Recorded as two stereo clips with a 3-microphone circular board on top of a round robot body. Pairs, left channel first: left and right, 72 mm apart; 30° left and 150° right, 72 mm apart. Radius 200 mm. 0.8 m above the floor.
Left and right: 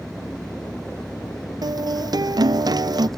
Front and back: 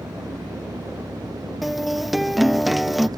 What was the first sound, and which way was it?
An engine running, 175° left.